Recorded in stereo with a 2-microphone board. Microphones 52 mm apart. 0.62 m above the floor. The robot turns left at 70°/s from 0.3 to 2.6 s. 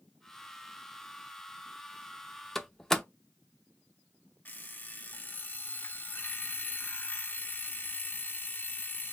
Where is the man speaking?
I don't hear a man speaking.